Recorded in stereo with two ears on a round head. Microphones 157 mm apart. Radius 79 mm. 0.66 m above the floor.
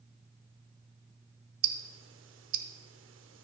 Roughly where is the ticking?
Right.